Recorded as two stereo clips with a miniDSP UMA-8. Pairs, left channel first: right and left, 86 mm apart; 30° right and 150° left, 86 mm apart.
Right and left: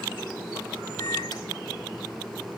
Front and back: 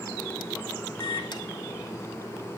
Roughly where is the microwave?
Ahead right.